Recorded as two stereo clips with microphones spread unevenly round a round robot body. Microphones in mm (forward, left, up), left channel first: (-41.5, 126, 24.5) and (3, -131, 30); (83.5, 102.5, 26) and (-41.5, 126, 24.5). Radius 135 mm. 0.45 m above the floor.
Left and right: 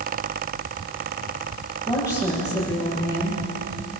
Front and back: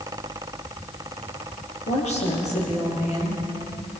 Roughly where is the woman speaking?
Ahead.